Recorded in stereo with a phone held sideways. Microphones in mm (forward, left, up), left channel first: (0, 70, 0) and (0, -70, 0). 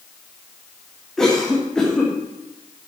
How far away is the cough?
About 1.9 m.